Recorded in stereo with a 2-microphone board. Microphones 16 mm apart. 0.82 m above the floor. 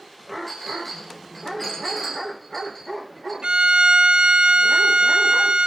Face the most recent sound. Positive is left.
turn(degrees=-70)  # may be behind; listen again after turning